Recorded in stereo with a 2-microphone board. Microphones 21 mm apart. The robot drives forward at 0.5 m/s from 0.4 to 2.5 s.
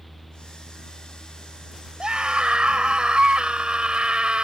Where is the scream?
50° right (ahead or behind); by 4.5 s 55° right (ahead or behind).